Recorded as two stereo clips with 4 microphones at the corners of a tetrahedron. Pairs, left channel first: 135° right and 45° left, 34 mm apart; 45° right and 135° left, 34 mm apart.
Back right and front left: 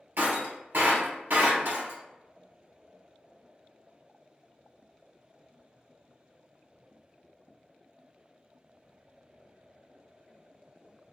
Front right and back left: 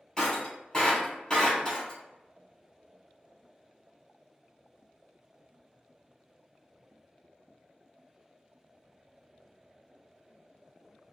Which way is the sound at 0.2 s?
30° left.